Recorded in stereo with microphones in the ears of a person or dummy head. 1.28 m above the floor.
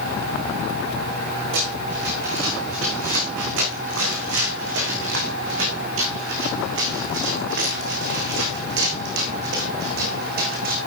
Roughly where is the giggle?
No giggle in this recording.